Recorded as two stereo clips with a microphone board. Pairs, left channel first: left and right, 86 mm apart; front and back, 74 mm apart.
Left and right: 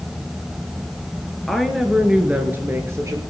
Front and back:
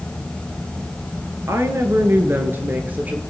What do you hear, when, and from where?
1.5 s a woman speaking: 175° left, 1.5 m; by 3.2 s 115° right, 1.6 m